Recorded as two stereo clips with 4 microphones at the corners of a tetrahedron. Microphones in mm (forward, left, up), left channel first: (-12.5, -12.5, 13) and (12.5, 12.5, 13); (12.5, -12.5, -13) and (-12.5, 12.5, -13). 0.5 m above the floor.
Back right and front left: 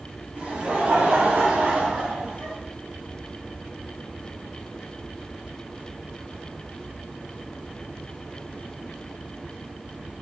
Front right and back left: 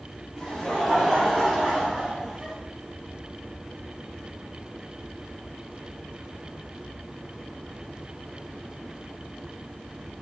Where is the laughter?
30° left, 1.8 m; by 2.6 s 60° left, 3 m.